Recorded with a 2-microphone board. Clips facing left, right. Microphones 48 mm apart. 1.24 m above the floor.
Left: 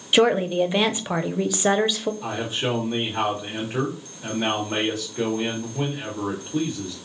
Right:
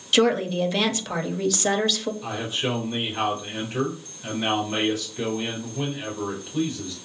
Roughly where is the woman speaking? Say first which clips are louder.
Left 2 dB; left.